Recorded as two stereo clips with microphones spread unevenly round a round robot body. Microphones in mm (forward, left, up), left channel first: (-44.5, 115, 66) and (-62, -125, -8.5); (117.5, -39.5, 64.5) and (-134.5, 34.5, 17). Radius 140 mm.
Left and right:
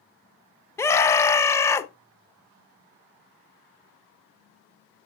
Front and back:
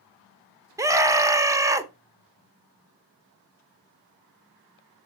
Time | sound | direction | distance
0.8 | a scream | 170° right | 0.9 m